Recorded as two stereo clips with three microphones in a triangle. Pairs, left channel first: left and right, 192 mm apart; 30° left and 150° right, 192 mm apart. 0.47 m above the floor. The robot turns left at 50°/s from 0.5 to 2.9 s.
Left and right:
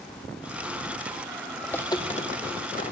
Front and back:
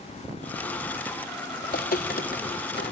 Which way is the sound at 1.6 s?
5° left.